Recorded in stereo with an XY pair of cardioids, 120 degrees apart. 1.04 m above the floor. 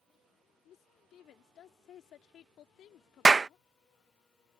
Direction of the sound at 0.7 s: 65° left.